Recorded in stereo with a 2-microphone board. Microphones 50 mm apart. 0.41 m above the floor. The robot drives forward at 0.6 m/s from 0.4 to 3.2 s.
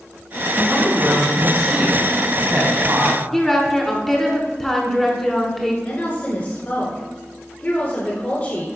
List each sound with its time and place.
0.6 s a woman speaking: 35° right (ahead or behind), 3 m; by 3.2 s 55° right (ahead or behind), 2 m
3.3 s a woman speaking: 5° left (ahead or behind), 1.0 m
5.8 s a woman speaking: 30° left (ahead or behind), 1.4 m